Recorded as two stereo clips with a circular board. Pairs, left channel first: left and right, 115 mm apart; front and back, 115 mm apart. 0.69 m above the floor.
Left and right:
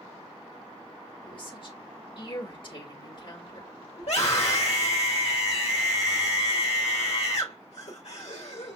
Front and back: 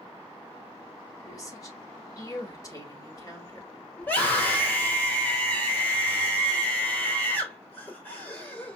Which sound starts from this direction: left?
A scream, at 4.0 s.